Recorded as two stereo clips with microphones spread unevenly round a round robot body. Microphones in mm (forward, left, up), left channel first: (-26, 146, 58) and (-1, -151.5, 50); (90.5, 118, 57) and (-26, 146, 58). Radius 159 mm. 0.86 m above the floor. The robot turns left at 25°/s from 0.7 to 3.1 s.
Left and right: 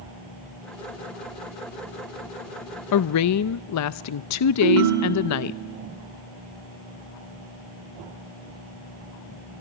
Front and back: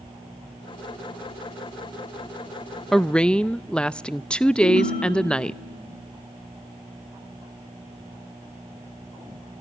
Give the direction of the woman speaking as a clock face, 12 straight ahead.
10 o'clock.